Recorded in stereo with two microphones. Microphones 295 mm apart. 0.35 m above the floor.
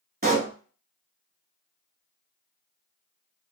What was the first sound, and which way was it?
A pop, 30° right (ahead or behind).